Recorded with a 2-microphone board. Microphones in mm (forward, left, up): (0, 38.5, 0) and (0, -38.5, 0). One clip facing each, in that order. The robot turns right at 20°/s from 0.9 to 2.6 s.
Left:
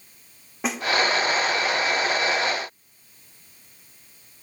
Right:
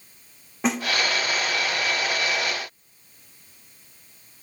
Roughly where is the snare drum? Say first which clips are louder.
Right 3 dB; centre.